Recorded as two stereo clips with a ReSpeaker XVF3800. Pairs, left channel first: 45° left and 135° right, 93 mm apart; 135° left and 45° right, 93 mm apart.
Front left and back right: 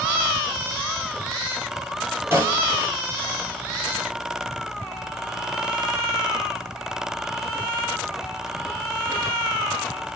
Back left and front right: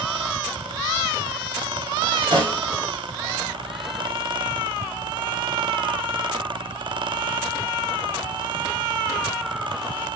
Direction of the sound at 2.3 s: 70° right.